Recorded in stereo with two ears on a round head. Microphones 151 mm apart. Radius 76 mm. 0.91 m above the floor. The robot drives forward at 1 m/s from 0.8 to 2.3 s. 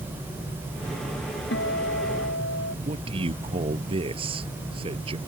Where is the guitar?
70° left (ahead or behind); by 2.8 s 75° left (ahead or behind).